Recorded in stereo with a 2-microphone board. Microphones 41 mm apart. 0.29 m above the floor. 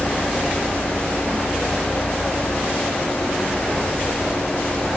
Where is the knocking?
I don't hear knocking.